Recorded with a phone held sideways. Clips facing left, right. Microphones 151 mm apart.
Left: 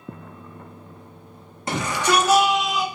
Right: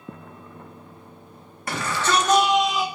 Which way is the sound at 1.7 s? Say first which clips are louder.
Left 2 dB; 20° left (ahead or behind).